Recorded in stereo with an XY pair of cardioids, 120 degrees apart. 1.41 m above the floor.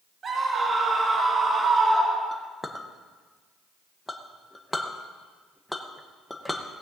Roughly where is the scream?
Ahead right.